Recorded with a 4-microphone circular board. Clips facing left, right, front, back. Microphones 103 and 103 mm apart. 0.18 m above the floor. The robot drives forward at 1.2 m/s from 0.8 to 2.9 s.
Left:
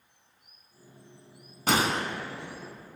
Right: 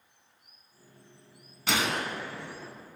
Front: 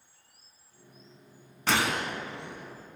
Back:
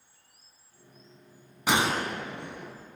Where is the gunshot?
105° left, 0.6 m; by 2.7 s 165° left, 1.5 m.